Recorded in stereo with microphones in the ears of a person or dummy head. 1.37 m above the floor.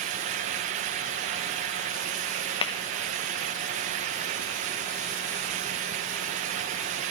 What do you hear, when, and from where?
2.6 s tapping: 25° left (ahead or behind), 1.2 m